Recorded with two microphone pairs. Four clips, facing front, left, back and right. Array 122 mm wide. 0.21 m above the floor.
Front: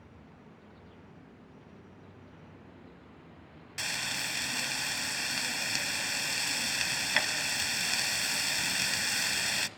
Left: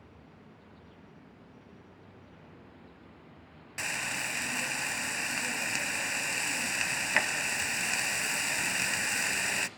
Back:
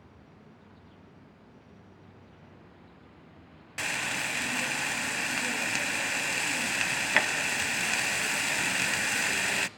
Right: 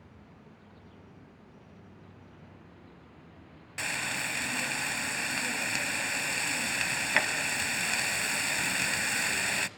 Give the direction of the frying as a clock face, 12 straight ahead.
6 o'clock.